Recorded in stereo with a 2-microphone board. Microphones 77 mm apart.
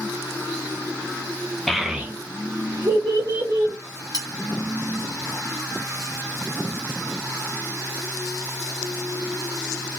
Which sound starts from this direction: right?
Cutlery clinking, at 4.1 s.